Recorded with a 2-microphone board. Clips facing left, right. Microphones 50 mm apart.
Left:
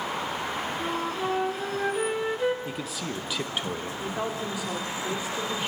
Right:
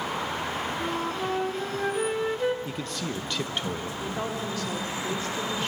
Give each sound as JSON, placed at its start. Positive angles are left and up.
{"t": 0.8, "sound": "a flute", "side_deg": 5, "distance_m": 1.1}
{"t": 2.6, "sound": "a man speaking", "side_deg": 5, "distance_m": 0.8}
{"t": 4.0, "sound": "a woman speaking", "side_deg": 10, "distance_m": 2.0}